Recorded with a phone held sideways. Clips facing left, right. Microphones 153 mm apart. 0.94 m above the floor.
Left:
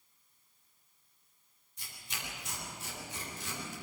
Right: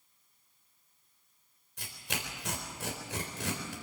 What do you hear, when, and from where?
1.8 s tearing paper: 80° right, 4 m